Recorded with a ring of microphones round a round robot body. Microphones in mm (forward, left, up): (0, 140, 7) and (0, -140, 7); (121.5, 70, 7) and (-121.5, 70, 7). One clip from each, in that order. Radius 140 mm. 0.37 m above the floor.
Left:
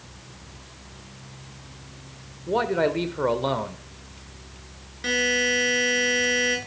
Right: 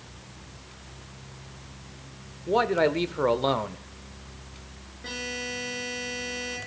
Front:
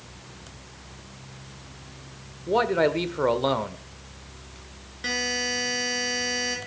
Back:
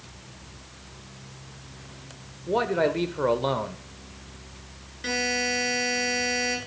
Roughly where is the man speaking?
Ahead right.